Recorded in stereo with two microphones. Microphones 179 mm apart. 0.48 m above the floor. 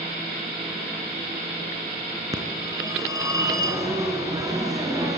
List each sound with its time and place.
2.3 s a phone ringing: 20° right (ahead or behind), 3.5 m